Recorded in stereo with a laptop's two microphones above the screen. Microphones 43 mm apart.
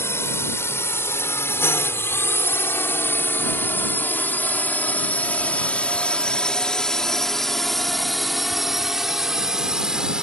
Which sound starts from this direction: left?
A drone, at 0.0 s.